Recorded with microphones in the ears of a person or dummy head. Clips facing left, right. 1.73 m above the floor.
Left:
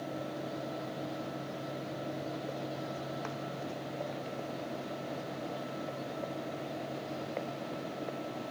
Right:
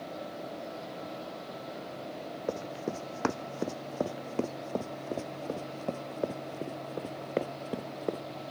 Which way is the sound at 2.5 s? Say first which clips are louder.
Right 4 dB; 70° right (ahead or behind).